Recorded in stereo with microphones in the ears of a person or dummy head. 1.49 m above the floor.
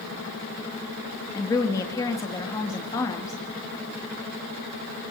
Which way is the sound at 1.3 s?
15° left (ahead or behind).